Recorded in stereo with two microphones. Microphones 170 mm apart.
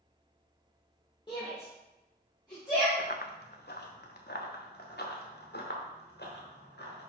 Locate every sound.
1.3 s a shout: 25° left (ahead or behind), 3 m
3.0 s running footsteps: 65° left (ahead or behind), 0.9 m; by 7.1 s 80° left, 3.5 m